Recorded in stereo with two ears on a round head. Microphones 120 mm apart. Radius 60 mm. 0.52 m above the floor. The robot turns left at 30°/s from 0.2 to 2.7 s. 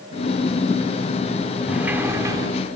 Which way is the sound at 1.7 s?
10° right (ahead or behind).